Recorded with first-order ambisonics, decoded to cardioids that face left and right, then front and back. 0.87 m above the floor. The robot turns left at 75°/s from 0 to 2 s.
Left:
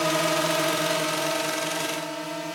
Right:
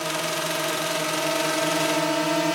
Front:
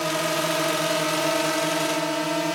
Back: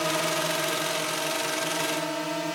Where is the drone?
80° left; by 2.5 s 55° right.